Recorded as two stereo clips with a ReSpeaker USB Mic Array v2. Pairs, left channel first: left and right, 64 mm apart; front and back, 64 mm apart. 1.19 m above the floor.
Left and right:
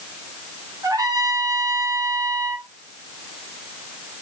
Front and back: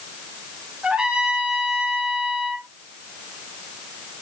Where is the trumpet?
105° right, 3.5 m.